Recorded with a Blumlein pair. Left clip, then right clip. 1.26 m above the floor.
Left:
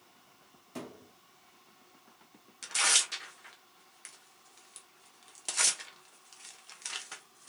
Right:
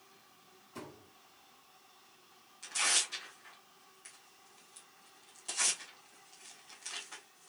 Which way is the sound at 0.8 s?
60° left.